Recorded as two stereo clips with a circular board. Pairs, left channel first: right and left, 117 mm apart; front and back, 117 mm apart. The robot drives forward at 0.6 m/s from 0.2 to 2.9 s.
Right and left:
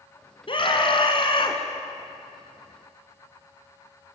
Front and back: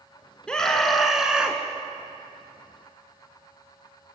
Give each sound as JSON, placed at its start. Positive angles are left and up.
{"t": 0.5, "sound": "a scream", "azimuth_deg": -80, "distance_m": 2.0}